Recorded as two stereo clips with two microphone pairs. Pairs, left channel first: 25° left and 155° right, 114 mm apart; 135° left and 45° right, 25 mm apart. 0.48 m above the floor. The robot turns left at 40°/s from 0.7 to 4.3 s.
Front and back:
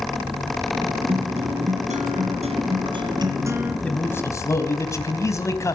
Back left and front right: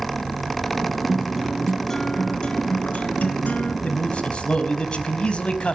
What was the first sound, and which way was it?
A guitar, 120° right.